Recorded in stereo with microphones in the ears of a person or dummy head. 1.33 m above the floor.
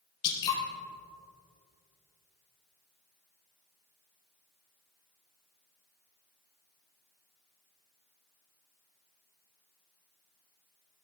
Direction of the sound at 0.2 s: 30° left (ahead or behind).